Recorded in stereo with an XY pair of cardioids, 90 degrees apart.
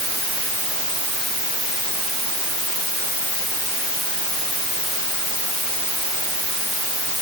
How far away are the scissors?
I don't hear scissors.